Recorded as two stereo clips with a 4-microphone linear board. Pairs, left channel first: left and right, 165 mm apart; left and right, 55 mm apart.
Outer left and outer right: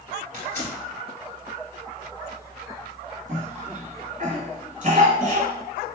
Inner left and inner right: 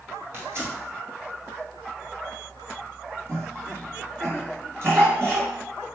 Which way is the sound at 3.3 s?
50° right (ahead or behind).